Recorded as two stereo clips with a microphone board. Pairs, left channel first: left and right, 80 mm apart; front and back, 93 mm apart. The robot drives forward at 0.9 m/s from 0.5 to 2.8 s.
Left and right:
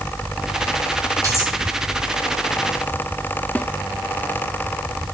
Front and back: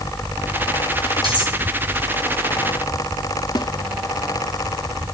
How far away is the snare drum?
About 1.4 m.